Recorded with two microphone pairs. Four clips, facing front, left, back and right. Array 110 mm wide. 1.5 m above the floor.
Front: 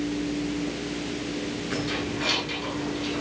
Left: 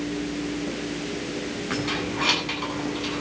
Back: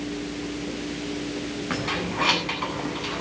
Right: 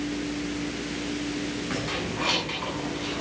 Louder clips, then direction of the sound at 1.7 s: Left 3 dB, back 2 dB; 170° left.